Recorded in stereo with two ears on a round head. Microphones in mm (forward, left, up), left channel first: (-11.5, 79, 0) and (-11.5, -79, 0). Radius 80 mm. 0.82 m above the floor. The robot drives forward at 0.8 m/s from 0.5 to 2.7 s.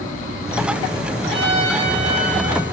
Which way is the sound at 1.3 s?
30° right (ahead or behind).